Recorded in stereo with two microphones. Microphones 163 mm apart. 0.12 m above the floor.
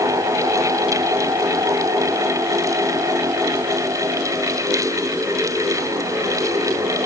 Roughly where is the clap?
I don't hear a clap.